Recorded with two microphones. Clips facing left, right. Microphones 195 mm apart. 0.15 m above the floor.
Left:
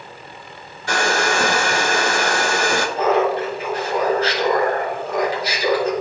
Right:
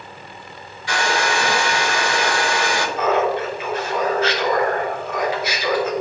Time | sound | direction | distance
0.9 | a hair dryer | 50° left (ahead or behind) | 0.7 m
3.0 | laughter | 35° left (ahead or behind) | 2.5 m